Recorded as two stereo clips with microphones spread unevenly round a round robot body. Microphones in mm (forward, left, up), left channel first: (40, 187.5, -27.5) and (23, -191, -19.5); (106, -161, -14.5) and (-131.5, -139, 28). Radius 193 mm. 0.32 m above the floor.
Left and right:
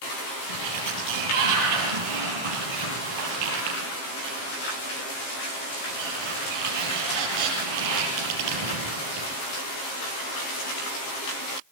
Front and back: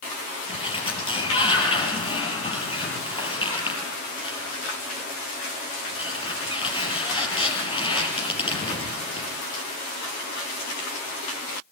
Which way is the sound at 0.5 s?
75° right.